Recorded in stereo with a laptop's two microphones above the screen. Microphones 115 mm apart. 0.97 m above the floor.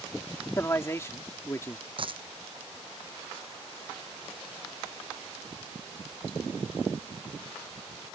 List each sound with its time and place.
0.6 s a man speaking: 25° left (ahead or behind)
2.0 s a dropped coin: 50° right (ahead or behind)